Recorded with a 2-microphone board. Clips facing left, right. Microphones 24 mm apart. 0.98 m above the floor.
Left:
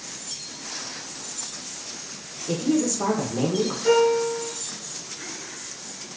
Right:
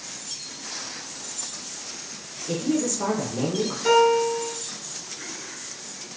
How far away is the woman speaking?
About 0.5 m.